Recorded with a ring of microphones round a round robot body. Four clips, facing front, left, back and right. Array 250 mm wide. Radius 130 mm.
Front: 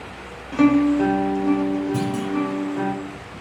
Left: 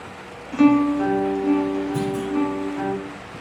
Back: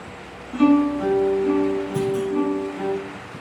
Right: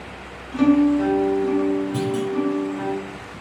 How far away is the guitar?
About 3 m.